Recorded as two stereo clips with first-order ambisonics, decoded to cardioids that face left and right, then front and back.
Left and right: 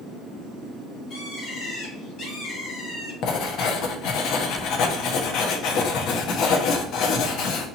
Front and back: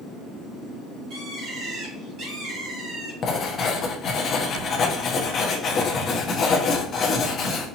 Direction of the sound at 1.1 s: 135° left.